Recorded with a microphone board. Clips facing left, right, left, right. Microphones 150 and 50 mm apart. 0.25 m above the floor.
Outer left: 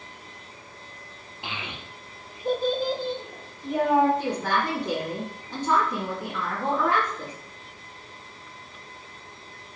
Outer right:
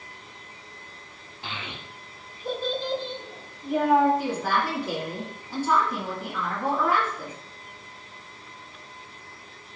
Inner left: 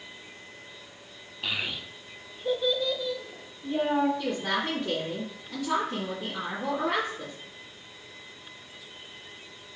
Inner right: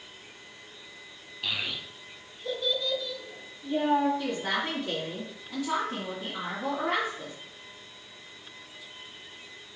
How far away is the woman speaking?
About 1.8 m.